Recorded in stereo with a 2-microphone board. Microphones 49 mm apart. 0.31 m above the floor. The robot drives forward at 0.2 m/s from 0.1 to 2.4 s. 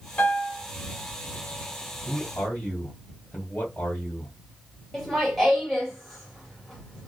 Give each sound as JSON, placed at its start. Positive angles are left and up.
{"t": 0.2, "sound": "a piano", "side_deg": 25, "distance_m": 1.0}
{"t": 2.0, "sound": "a man speaking", "side_deg": 35, "distance_m": 1.4}
{"t": 4.9, "sound": "laughter", "side_deg": 0, "distance_m": 1.2}